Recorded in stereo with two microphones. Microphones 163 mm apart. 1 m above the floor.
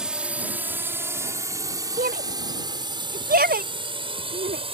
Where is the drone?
5° right (ahead or behind); by 4.8 s 35° right (ahead or behind).